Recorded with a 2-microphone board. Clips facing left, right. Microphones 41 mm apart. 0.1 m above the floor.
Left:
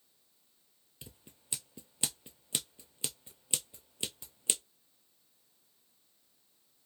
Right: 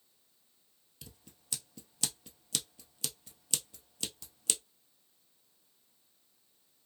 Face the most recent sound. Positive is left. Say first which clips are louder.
# left 1 dB
turn(degrees=25)  # may be behind; listen again after turning